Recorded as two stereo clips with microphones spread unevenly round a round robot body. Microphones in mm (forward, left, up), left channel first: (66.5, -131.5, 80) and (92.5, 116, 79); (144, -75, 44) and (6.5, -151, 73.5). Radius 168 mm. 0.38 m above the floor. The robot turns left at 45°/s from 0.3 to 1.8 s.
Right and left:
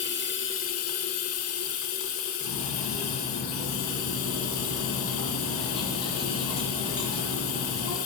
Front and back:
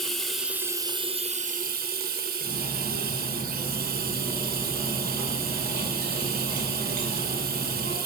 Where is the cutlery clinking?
170° right, 2.5 m.